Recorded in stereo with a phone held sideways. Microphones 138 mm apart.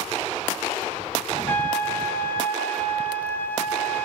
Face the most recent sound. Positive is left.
turn(degrees=15)  # may be behind; listen again after turning